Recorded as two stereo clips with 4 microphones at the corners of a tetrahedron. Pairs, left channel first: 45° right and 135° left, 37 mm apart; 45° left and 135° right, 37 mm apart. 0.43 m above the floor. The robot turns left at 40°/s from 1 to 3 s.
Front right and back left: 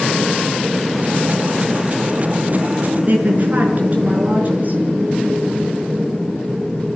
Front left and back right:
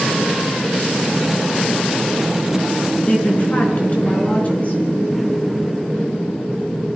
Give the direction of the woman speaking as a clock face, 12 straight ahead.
9 o'clock.